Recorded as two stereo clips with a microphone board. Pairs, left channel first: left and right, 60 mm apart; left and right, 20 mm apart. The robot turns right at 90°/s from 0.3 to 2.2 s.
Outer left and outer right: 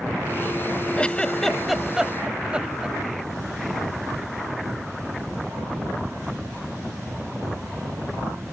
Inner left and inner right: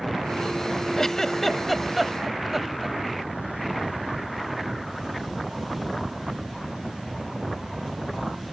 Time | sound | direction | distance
1.0 | a giggle | 20° left (ahead or behind) | ?